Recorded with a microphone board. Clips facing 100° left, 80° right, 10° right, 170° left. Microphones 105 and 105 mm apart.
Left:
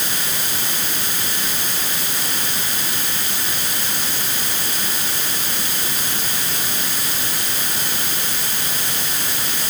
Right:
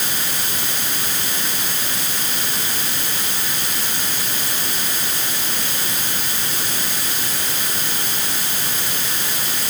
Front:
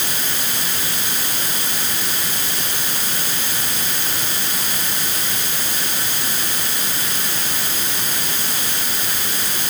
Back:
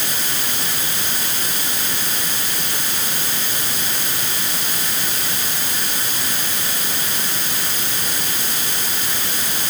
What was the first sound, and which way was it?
Only background noise.